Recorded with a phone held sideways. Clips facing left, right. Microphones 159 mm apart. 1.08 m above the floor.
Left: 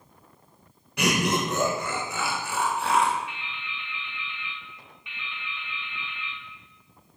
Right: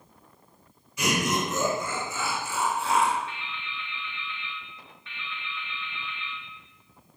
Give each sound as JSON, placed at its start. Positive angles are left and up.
{"t": 1.0, "sound": "laughter", "side_deg": 75, "distance_m": 0.7}
{"t": 3.3, "sound": "dripping", "side_deg": 15, "distance_m": 0.5}